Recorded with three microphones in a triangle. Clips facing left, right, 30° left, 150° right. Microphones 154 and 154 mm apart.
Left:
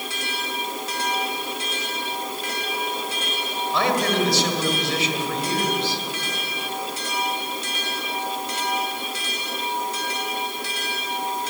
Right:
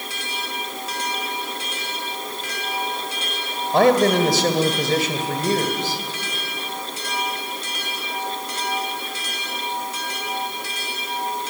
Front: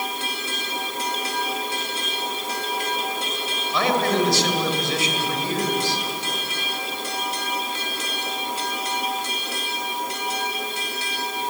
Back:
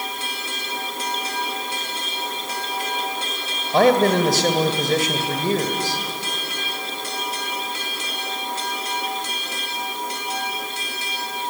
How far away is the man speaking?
About 2 m.